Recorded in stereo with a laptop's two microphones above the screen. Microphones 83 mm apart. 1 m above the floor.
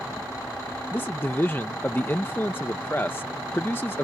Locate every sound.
0.9 s a man speaking: 25° left (ahead or behind)